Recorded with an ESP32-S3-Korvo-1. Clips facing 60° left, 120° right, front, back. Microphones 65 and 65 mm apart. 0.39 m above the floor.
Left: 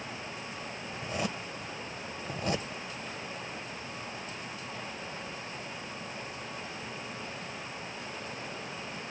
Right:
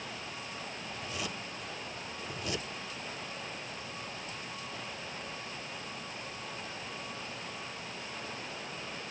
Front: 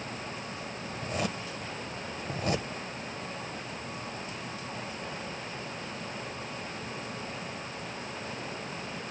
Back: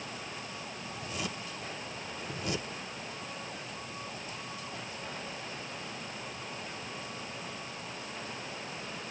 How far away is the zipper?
About 1.1 m.